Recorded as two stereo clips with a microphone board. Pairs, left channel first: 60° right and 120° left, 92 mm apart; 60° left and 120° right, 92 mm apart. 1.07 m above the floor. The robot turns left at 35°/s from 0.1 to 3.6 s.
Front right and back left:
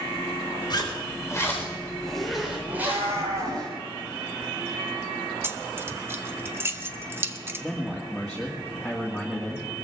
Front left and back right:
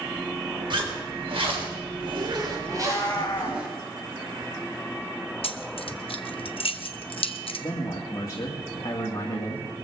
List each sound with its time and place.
0.7 s a zipper: 95° right, 3.5 m; by 3.7 s 165° left, 3.5 m
2.7 s a cat meowing: 125° left, 4 m; by 3.6 s 95° left, 4 m
5.4 s keys jangling: 55° left, 0.8 m
7.6 s a man speaking: 35° left, 2.5 m